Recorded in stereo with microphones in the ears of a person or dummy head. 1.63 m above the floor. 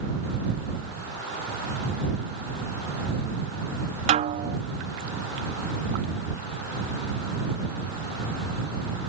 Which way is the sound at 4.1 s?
35° right (ahead or behind).